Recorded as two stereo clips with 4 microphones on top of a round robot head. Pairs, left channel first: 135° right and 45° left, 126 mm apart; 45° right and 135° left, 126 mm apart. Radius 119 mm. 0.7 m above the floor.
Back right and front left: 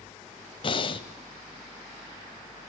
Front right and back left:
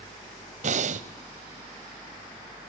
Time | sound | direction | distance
0.6 | breathing | 170° left | 1.1 m